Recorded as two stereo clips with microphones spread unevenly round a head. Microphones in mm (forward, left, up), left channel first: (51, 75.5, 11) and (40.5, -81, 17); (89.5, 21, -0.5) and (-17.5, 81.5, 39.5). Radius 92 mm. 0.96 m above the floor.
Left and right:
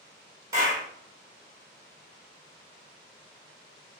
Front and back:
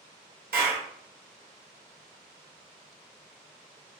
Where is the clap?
170° right, 0.6 m.